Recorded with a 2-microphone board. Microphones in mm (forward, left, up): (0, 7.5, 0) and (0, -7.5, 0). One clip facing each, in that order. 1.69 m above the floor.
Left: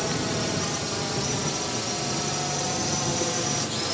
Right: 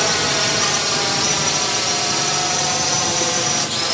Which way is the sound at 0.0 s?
55° right (ahead or behind).